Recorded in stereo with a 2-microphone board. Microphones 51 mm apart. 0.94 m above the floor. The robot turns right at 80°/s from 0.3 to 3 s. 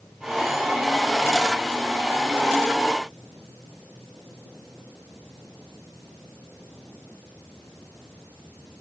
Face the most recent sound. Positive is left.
No sound to turn to.